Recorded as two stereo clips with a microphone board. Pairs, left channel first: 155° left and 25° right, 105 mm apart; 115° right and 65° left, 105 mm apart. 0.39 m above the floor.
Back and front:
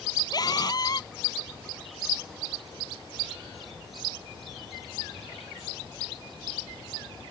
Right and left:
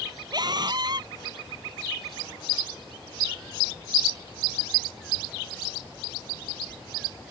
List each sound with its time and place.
0.3 s a scream: 110° left